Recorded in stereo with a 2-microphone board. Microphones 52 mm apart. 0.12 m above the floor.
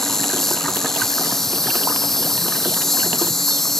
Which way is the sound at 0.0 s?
5° left (ahead or behind).